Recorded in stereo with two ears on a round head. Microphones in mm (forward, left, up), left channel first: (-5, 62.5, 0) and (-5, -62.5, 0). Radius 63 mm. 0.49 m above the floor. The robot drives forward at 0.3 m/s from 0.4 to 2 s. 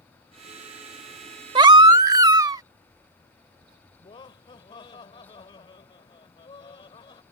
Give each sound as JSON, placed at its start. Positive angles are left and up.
{"t": 1.6, "sound": "a baby crying", "side_deg": -35}
{"t": 4.0, "sound": "laughter", "side_deg": 35}